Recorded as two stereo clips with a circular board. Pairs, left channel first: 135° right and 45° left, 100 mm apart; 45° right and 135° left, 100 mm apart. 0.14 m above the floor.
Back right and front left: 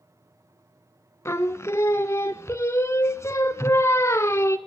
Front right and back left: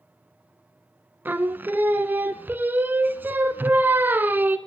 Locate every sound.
1.2 s singing: 170° right, 0.5 m